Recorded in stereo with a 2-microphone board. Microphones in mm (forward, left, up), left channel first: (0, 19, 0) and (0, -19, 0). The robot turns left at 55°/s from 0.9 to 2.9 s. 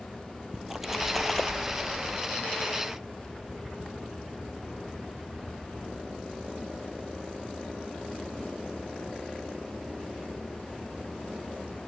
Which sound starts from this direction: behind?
A splash, at 0.5 s.